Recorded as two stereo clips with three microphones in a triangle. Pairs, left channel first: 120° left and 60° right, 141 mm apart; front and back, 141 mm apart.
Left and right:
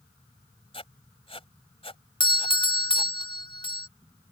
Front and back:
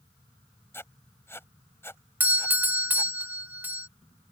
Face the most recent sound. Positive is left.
turn(degrees=110)